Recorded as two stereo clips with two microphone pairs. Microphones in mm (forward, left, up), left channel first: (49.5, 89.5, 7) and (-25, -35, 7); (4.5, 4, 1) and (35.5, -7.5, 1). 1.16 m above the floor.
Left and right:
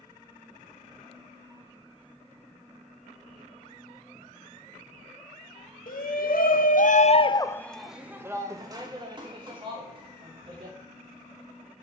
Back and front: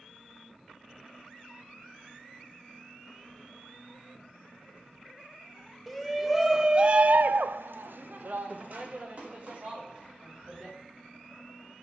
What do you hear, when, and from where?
5.9 s a shout: 70° left, 1.2 m; by 10.8 s 70° right, 2.5 m